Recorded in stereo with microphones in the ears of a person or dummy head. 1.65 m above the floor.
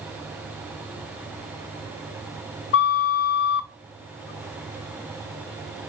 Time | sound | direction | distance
2.7 | a flute | 55° left (ahead or behind) | 0.6 m